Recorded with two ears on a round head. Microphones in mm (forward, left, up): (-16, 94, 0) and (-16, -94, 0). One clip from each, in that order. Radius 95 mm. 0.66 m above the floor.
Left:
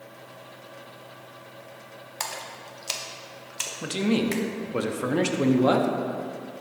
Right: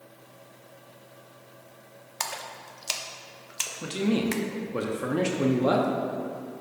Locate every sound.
2.2 s a splash: 5° right (ahead or behind), 0.6 m
3.8 s a man speaking: 15° left (ahead or behind), 0.6 m